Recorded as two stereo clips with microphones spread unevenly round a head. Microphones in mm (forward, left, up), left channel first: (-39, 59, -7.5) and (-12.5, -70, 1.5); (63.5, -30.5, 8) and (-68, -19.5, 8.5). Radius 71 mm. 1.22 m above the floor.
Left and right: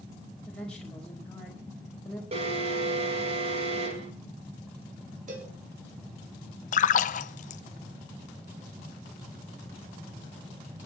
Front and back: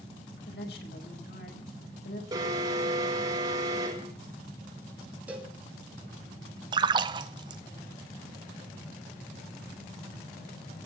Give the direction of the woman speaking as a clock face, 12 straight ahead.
11 o'clock.